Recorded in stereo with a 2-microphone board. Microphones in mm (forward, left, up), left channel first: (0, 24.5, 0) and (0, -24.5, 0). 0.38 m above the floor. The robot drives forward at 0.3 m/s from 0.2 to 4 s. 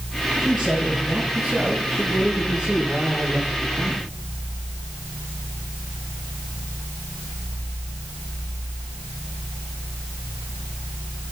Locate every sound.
0.4 s a man speaking: 5° right (ahead or behind), 7.5 m